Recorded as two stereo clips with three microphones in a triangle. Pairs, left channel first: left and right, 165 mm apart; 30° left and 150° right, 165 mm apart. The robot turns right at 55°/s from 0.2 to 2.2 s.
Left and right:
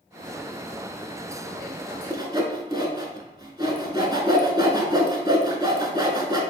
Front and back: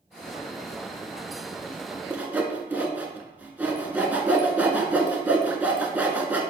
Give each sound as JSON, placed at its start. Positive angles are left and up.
{"t": 2.1, "sound": "sawing", "azimuth_deg": -90, "distance_m": 0.6}